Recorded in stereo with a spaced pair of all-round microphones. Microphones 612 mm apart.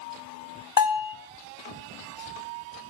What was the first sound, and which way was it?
A bell, 35° left (ahead or behind).